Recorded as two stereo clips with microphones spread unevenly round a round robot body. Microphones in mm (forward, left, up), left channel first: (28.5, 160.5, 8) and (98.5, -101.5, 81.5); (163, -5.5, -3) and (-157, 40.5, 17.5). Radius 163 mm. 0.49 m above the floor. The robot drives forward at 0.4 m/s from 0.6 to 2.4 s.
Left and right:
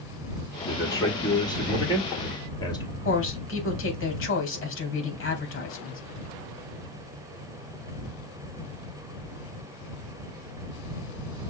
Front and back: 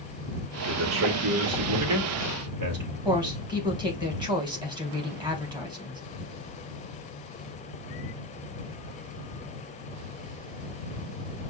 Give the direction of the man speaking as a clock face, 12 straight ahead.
7 o'clock.